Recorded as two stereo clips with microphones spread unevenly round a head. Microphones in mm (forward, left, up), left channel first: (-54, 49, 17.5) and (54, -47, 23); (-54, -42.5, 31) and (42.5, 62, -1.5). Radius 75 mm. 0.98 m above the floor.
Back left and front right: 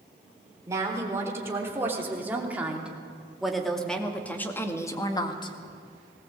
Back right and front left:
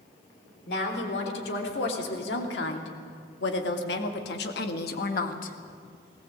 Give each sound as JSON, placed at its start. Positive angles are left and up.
{"t": 0.7, "sound": "a woman speaking", "azimuth_deg": -110, "distance_m": 4.0}